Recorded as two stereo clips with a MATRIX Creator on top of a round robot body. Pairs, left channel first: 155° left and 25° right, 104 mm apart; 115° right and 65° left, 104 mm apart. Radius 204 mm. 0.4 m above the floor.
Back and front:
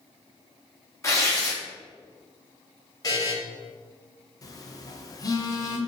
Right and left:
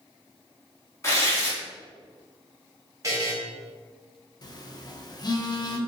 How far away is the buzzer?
About 1.0 m.